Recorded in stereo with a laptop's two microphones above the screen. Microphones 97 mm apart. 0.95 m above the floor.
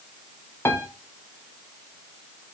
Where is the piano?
25° left (ahead or behind), 0.5 m.